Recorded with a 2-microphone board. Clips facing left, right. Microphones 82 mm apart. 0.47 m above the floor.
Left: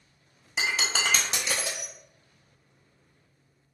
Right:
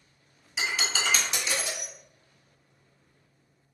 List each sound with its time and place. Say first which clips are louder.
0.6 s breaking glass: left 2 dB; 60° left (ahead or behind), 0.8 m